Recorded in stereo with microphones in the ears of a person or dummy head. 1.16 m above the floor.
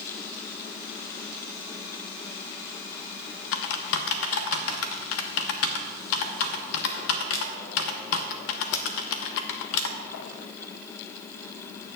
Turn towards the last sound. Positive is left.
turn(degrees=70)  # may be behind; listen again after turning